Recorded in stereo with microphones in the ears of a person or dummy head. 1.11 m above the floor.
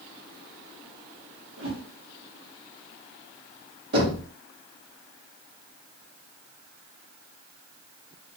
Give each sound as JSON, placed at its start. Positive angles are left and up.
{"t": 1.6, "sound": "a whoosh", "side_deg": -70, "distance_m": 1.1}
{"t": 3.9, "sound": "knocking", "side_deg": -55, "distance_m": 1.1}